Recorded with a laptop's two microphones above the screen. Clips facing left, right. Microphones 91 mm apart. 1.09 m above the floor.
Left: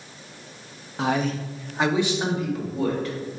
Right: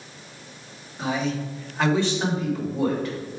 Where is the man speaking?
70° left (ahead or behind), 0.9 m; by 3.1 s centre (ahead or behind), 3.5 m.